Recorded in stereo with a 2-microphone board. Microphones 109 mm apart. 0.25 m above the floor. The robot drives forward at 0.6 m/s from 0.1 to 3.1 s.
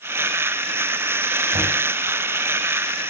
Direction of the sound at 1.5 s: 60° right (ahead or behind).